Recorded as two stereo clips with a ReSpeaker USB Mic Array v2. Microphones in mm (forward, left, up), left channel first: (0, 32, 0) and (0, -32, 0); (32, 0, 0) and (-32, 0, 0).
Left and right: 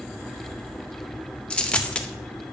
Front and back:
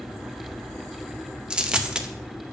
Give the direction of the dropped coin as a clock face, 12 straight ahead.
8 o'clock.